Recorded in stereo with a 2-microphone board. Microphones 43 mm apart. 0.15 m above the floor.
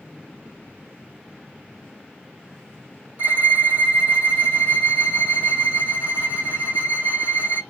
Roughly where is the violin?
Right.